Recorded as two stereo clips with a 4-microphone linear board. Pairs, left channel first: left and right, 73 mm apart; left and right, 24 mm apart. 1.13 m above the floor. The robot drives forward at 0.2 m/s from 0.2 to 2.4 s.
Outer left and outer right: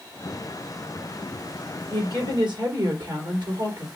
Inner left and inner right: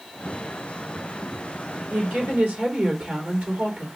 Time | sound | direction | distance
1.9 | a woman speaking | 85° right | 2.5 m